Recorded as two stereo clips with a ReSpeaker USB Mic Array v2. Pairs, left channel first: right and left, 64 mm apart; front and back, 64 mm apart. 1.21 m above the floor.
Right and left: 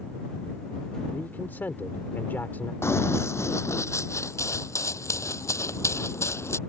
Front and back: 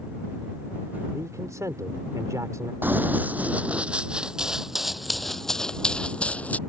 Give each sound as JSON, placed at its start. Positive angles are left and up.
{"t": 1.1, "sound": "a man speaking", "azimuth_deg": -150}
{"t": 2.8, "sound": "running footsteps", "azimuth_deg": -125}